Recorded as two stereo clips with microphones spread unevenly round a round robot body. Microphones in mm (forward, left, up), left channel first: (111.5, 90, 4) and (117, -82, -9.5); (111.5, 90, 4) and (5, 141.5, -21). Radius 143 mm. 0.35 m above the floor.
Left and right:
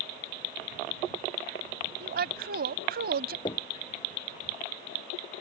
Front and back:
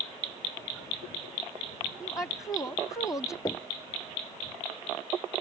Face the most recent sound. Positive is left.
turn(degrees=30)